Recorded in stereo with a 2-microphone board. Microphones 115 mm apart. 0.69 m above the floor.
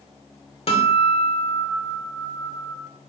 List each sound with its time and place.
0.7 s a guitar: 60° left (ahead or behind), 2.5 m